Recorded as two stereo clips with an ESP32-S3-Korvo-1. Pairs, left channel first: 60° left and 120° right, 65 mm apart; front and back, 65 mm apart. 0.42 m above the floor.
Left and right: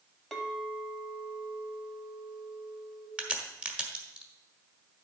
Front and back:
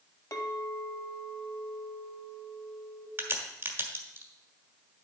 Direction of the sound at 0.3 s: 25° right.